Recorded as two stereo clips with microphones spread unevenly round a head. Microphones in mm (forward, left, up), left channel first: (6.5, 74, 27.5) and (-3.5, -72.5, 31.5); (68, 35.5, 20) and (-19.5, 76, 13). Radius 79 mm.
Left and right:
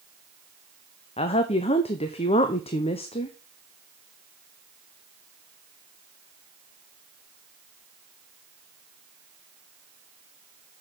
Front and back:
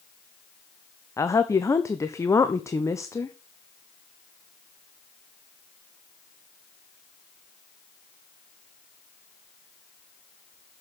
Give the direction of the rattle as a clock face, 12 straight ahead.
No rattle in this recording.